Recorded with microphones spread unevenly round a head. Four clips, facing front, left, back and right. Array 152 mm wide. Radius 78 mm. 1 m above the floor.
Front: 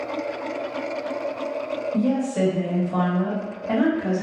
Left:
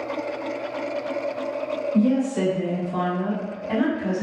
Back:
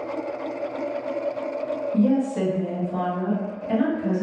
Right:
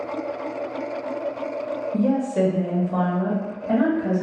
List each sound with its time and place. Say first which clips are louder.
1.9 s a woman speaking: even, back 2 dB; 95° right, 1.1 m; by 4.2 s 30° right, 1.8 m